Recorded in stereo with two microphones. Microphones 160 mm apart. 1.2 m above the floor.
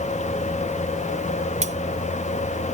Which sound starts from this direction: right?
Cutlery clinking, at 1.6 s.